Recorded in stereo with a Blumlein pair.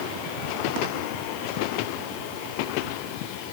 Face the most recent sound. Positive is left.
No sound to turn to.